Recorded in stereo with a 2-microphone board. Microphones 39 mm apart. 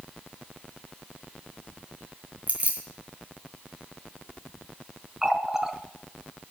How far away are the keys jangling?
About 2.5 m.